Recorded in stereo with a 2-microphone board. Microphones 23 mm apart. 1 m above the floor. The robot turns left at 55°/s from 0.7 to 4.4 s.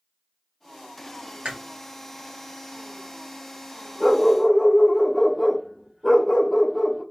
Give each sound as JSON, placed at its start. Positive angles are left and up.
{"t": 1.4, "sound": "chewing", "side_deg": -60, "distance_m": 1.4}
{"t": 4.0, "sound": "a dog barking", "side_deg": -5, "distance_m": 1.3}